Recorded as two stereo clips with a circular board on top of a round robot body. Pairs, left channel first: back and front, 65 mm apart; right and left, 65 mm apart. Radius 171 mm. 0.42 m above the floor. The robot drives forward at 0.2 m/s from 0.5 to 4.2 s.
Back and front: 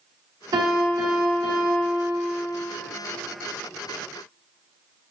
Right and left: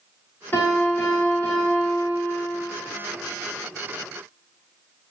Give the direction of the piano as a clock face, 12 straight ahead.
1 o'clock.